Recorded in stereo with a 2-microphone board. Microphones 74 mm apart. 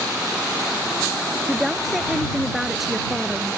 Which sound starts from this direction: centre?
A woman speaking, at 1.5 s.